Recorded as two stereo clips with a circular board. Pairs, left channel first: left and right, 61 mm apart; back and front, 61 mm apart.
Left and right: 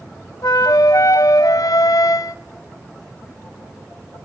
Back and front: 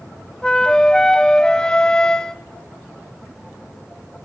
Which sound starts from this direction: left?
A flute, at 0.4 s.